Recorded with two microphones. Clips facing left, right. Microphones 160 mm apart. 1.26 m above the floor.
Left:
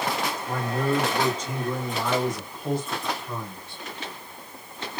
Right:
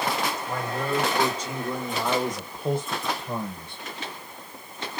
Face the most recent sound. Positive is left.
turn(degrees=-55)  # may be behind; listen again after turning